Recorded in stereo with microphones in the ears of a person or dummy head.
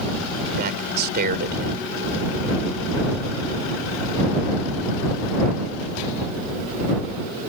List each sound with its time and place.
0.6 s a man speaking: 55° right (ahead or behind)